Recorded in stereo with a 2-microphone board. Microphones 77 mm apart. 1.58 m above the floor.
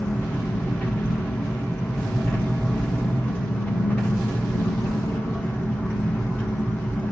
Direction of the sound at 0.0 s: 25° left (ahead or behind).